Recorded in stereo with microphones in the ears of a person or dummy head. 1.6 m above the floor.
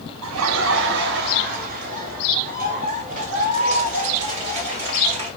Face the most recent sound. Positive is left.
turn(degrees=-35)  # may be behind; listen again after turning